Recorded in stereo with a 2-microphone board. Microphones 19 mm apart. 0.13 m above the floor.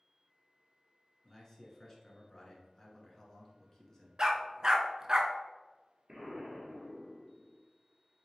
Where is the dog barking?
35° right (ahead or behind), 0.6 m.